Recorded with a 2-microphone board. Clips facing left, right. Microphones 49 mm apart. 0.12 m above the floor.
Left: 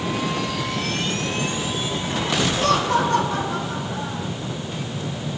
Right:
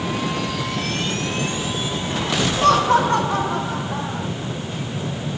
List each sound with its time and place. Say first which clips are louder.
2.6 s laughter: right 6 dB; 25° right (ahead or behind), 7.5 m; by 4.3 s 40° right (ahead or behind), 8.5 m